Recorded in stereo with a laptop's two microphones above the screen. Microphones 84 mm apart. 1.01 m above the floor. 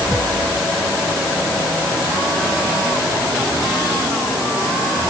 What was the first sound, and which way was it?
Only background noise.